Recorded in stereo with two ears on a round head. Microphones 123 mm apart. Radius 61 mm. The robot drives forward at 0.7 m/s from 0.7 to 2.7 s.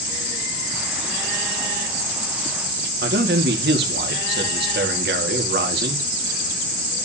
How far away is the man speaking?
About 2.0 m.